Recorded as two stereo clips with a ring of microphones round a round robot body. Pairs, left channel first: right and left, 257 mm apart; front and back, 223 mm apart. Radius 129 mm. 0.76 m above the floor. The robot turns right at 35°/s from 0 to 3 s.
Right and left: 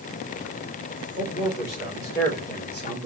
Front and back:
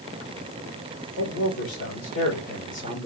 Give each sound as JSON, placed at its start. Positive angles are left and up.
{"t": 1.2, "sound": "a man speaking", "azimuth_deg": -10, "distance_m": 3.0}